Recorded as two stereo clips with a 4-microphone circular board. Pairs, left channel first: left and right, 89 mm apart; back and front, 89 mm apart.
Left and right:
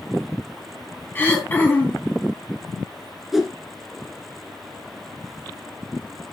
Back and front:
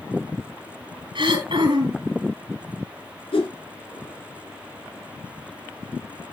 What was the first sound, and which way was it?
Throat clearing, 20° left.